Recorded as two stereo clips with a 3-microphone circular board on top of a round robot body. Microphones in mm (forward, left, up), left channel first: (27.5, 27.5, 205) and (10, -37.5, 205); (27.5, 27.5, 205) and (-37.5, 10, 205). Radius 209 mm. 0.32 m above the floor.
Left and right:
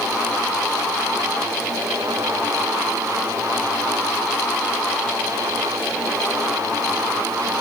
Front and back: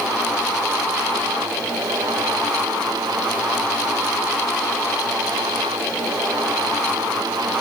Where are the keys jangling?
I don't hear keys jangling.